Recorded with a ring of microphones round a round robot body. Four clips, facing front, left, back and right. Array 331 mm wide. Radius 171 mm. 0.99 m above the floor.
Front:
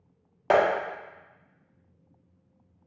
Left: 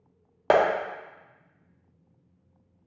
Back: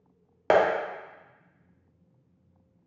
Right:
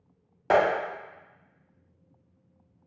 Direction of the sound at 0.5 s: 120° left.